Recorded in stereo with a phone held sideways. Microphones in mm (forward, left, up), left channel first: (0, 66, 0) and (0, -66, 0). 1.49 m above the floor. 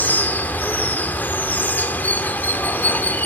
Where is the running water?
10° left (ahead or behind), 1.2 m.